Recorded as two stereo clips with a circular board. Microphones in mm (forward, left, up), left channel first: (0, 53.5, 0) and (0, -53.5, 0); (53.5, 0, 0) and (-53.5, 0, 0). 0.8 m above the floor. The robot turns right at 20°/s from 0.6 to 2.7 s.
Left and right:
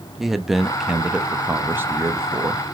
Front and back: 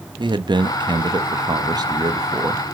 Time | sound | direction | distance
0.2 | a man speaking | 175° right | 0.8 m